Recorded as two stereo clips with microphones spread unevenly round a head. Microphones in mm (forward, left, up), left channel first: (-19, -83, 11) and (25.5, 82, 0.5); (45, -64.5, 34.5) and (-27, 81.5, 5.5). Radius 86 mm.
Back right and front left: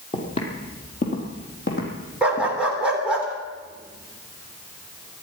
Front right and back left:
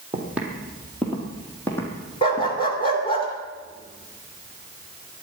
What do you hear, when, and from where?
0.1 s footsteps: 160° right, 3 m; by 2.6 s 130° right, 4.5 m
2.2 s a dog barking: 10° right, 2.5 m